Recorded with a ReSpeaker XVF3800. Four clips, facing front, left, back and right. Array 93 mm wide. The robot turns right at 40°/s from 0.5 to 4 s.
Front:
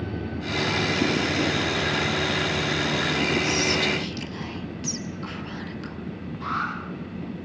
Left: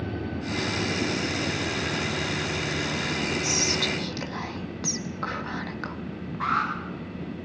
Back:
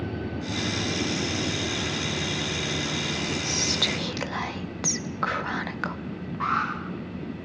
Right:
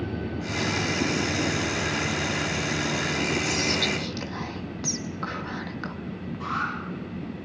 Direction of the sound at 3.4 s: 160° left.